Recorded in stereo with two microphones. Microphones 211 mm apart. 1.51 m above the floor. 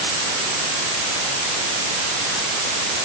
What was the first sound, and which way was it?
Only background noise.